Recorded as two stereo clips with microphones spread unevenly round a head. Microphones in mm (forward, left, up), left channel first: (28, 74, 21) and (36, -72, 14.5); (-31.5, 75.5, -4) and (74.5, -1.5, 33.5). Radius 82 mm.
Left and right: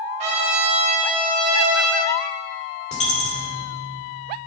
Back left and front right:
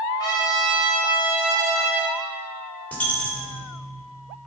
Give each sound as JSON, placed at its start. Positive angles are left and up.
{"t": 0.2, "sound": "a trumpet", "azimuth_deg": -145, "distance_m": 1.9}
{"t": 2.9, "sound": "a dropped coin", "azimuth_deg": 60, "distance_m": 2.5}